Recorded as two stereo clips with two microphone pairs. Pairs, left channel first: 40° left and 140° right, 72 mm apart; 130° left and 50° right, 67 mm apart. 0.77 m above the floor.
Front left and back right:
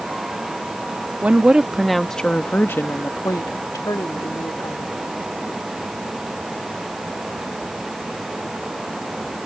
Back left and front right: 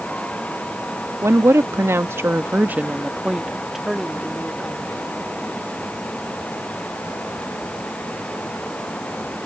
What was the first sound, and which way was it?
A woman speaking, 75° right.